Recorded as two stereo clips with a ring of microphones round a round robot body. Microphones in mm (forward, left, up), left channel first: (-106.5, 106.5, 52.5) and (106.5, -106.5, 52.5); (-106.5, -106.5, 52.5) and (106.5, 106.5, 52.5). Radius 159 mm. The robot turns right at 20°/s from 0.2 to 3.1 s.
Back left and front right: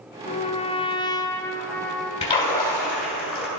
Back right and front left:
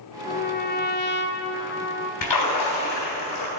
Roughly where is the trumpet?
Behind.